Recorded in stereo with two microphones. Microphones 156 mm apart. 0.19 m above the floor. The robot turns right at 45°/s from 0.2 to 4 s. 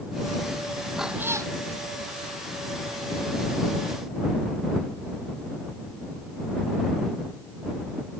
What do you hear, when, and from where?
1.0 s a cat meowing: centre (ahead or behind); by 1.5 s 25° right (ahead or behind)